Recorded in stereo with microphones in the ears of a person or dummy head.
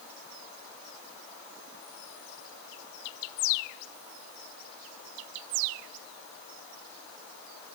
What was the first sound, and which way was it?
Only background noise.